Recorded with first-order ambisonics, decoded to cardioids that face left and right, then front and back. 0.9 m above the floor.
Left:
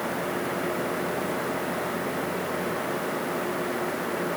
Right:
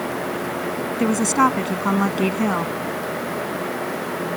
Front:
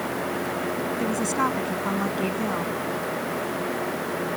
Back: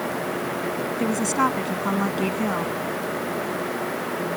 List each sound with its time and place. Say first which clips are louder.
1.0 s a woman speaking: right 10 dB, back 3 dB; 100° right